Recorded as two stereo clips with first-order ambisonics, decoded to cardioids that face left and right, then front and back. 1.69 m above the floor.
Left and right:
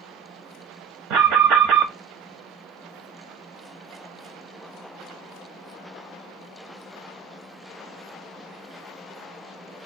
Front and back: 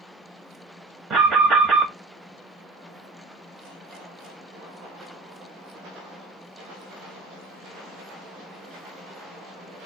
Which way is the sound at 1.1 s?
125° right.